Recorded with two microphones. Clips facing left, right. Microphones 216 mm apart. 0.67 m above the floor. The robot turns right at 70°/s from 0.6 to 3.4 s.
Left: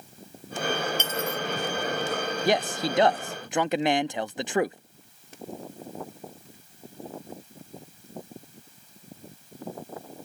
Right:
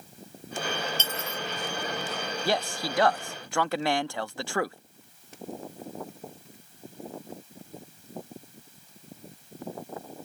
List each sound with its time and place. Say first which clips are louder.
1.0 s cutlery clinking: left 6 dB; 15° left (ahead or behind); by 1.4 s 45° left (ahead or behind)
2.5 s a man speaking: left 4 dB; 15° left (ahead or behind); by 4.8 s 20° left (ahead or behind)